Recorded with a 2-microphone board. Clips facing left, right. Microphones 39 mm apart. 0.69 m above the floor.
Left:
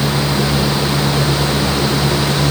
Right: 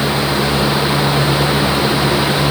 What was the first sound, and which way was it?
Only background noise.